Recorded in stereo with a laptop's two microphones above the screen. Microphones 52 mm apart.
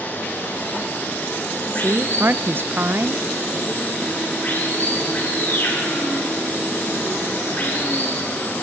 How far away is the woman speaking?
About 0.6 m.